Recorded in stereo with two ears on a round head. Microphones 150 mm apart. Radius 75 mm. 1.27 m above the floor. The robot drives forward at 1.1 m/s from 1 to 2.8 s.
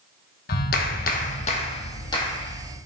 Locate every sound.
0.5 s a clap: 60° left (ahead or behind), 1.1 m; by 2.8 s 20° left (ahead or behind), 2.5 m